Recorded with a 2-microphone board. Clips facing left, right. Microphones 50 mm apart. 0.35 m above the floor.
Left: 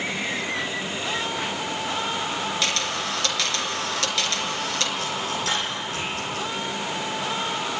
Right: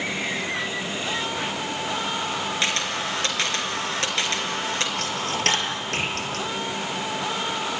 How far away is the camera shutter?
About 4 m.